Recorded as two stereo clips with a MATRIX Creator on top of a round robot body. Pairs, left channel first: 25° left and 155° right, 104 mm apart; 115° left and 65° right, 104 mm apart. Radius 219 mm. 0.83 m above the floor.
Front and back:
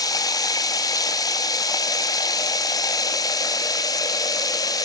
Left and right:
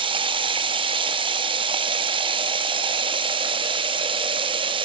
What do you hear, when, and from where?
0.0 s running water: 30° right, 0.9 m